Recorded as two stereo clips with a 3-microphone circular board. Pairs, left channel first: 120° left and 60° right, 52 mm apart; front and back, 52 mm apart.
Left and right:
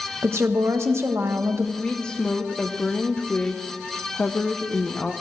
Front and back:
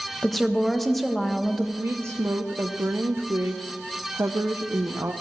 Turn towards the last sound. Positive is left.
turn(degrees=-170)